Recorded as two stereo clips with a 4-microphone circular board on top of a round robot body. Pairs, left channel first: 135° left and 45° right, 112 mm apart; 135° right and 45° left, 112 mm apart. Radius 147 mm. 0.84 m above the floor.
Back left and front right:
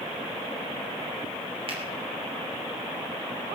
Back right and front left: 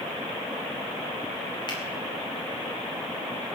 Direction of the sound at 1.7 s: 85° right.